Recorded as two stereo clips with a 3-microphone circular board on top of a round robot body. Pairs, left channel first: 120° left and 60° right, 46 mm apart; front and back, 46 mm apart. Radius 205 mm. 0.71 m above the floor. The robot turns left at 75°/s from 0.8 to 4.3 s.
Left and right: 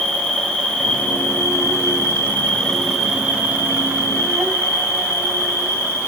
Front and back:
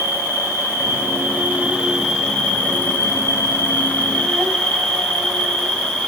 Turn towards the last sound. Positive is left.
turn(degrees=-75)